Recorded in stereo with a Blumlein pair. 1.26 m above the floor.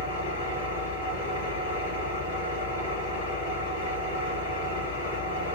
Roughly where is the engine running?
Ahead left.